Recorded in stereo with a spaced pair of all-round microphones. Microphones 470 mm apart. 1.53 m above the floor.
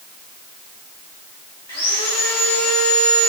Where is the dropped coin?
No dropped coin in this recording.